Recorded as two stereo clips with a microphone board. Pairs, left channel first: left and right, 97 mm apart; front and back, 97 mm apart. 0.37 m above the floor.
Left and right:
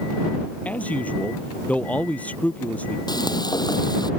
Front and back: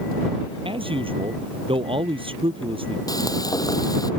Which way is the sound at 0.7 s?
165° left.